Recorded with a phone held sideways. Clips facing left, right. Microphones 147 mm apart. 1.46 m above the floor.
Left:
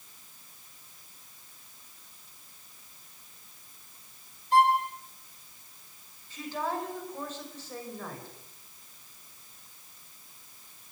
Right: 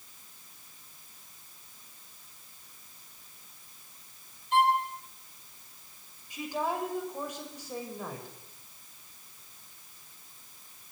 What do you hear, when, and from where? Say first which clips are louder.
4.5 s a violin: left 2 dB; 40° left (ahead or behind), 3.5 m
6.3 s a woman speaking: right 1 dB; 15° right (ahead or behind), 6 m